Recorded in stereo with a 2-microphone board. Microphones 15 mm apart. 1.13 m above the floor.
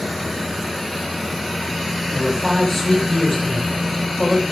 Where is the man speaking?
15° left (ahead or behind), 4.5 m.